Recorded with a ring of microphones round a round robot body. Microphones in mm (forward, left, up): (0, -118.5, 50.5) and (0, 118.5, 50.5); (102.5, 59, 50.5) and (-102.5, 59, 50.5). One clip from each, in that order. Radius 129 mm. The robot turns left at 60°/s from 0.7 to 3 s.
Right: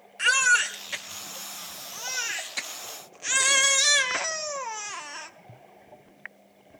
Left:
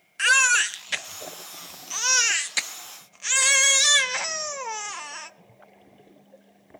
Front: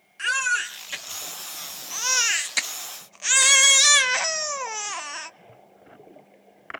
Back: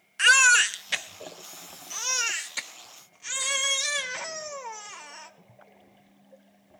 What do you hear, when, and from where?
0.2 s a baby crying: 150° left, 0.7 m; by 5.3 s 15° left, 0.7 m